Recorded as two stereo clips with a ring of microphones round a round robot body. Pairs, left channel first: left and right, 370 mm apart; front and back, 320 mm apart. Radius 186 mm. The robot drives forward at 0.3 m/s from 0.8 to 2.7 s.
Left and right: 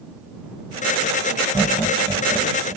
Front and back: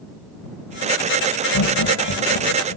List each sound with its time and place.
1.5 s laughter: straight ahead; by 2.8 s 5° left